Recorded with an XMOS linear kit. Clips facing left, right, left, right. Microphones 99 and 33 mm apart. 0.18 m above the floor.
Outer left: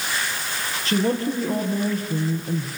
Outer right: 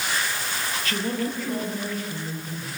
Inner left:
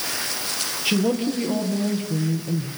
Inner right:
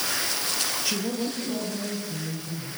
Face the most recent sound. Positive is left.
turn(degrees=40)  # may be behind; listen again after turning